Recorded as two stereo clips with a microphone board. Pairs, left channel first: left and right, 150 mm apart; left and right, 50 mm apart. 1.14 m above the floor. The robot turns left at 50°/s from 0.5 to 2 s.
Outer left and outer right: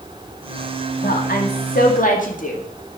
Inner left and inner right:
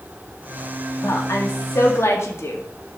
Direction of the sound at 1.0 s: 110° left.